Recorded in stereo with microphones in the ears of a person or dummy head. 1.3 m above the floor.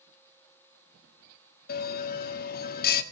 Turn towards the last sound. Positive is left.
turn(degrees=55)  # may be behind; listen again after turning